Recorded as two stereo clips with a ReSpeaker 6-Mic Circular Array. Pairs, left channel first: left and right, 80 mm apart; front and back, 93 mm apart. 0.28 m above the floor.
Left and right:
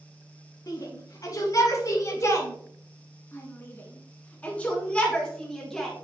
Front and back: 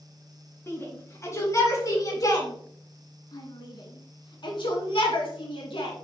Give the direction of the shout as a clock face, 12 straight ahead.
10 o'clock.